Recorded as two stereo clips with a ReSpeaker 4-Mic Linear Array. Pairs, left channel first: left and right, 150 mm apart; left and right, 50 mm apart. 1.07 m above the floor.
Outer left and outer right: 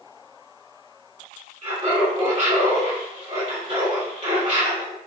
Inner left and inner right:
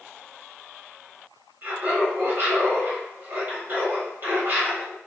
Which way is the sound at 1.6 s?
45° right (ahead or behind).